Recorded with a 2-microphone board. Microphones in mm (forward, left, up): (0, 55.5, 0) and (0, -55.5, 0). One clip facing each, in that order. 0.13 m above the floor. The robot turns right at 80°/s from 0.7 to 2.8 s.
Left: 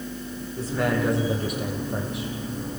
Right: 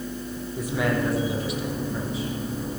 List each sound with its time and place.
0.6 s a man speaking: 15° right, 4.5 m; by 2.3 s 115° left, 4.5 m